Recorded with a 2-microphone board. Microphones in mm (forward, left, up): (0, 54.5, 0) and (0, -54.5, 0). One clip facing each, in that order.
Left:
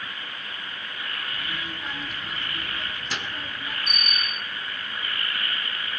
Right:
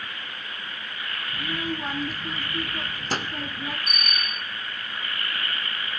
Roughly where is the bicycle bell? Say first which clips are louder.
Even; centre.